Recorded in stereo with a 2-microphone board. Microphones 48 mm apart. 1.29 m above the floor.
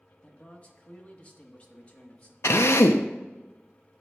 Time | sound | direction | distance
0.2 | a man speaking | 30° left (ahead or behind) | 1.3 m
2.4 | a drill | 70° left (ahead or behind) | 0.6 m